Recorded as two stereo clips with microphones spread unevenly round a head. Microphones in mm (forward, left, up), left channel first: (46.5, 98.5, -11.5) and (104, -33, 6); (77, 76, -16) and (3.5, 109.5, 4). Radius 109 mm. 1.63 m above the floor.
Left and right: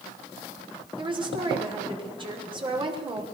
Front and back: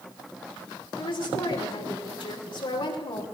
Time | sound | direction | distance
1.0 | a woman speaking | 15° right | 6 m